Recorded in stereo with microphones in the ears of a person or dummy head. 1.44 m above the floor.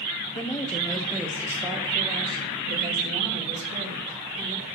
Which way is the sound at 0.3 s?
20° left (ahead or behind).